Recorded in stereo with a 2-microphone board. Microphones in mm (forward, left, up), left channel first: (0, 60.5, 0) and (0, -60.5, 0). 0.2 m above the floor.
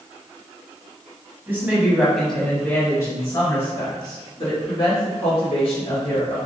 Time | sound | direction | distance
1.5 | a woman speaking | 20° right (ahead or behind) | 1.4 m